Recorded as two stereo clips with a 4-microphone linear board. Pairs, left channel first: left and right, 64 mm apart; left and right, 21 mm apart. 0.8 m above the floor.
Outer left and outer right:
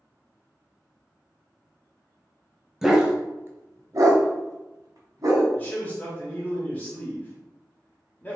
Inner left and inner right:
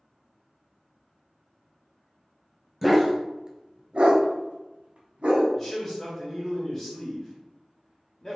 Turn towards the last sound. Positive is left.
turn(degrees=25)  # may be behind; listen again after turning